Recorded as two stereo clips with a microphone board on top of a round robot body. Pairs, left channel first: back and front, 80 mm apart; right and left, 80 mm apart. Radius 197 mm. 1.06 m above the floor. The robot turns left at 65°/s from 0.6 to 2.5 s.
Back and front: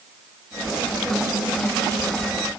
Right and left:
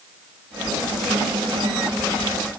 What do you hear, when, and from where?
Only background noise.